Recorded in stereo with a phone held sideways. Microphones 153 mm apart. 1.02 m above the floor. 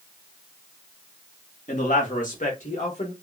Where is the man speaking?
55° left (ahead or behind), 1.3 m; by 3.1 s 50° left (ahead or behind), 1.4 m.